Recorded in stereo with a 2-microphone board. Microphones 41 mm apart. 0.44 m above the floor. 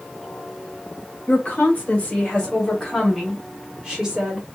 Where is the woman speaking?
40° left (ahead or behind), 1.6 m; by 4.5 s 25° right (ahead or behind), 1.4 m.